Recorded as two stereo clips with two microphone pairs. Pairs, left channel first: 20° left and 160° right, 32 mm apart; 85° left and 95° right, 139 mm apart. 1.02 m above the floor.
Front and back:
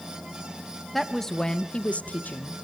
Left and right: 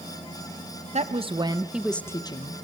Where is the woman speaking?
65° right, 1.1 m; by 2.5 s 45° left, 0.9 m.